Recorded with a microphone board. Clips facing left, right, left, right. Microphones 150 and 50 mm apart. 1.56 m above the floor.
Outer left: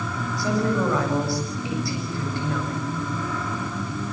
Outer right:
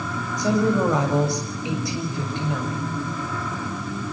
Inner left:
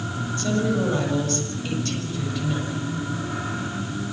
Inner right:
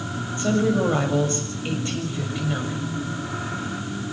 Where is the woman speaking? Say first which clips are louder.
Outer right 3 dB, inner right 3 dB; 20° right (ahead or behind), 7 m.